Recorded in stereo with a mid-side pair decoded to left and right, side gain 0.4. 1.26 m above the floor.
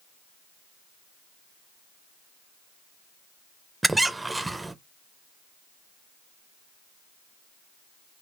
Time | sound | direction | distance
3.8 | a squeak | 20° right | 0.5 m